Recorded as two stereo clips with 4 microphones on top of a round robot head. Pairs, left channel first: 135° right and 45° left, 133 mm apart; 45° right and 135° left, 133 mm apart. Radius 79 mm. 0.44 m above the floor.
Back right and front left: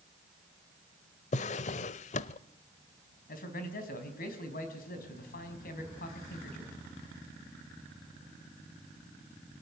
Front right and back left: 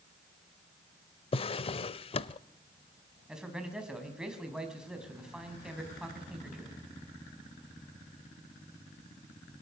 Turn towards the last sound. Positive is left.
turn(degrees=-140)